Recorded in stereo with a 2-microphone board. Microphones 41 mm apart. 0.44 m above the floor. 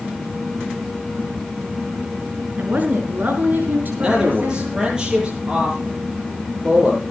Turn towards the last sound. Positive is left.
turn(degrees=-20)  # may be behind; listen again after turning